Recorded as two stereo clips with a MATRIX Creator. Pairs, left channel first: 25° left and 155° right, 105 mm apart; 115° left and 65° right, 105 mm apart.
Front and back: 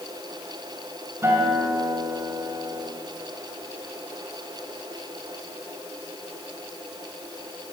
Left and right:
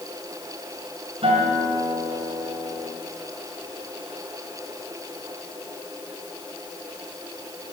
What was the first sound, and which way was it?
A guitar, 90° right.